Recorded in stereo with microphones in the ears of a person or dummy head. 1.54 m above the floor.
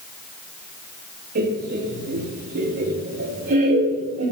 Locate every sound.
1.4 s laughter: 45° right (ahead or behind), 3 m